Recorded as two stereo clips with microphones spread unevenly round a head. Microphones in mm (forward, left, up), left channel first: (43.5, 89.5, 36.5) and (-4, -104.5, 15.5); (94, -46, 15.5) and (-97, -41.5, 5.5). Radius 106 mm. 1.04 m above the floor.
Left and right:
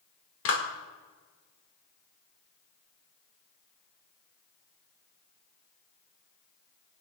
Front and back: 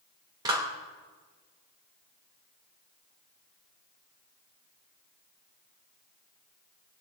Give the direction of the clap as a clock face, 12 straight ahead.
8 o'clock.